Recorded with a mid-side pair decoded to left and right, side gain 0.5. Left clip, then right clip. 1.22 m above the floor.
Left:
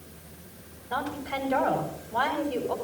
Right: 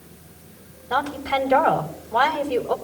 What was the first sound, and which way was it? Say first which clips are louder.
A woman speaking: right 8 dB; 70° right.